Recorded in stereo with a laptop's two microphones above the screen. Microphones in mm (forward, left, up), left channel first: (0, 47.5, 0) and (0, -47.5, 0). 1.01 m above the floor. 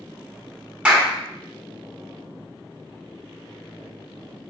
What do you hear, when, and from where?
0.8 s a clap: 10° right (ahead or behind), 1.6 m